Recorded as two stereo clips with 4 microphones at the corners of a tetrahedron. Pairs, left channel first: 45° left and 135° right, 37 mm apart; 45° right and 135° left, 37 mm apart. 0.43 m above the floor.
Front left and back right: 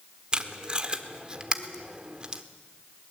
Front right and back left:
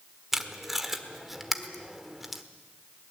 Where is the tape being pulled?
150° right, 1.4 m.